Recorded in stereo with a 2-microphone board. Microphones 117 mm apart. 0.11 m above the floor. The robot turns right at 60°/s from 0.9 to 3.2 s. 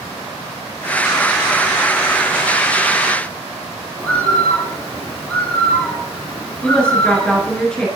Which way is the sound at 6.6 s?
10° left (ahead or behind).